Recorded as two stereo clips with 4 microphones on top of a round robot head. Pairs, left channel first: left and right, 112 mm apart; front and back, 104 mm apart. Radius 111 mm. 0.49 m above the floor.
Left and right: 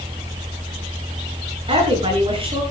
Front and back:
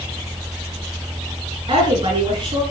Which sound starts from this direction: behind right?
A woman speaking, at 1.7 s.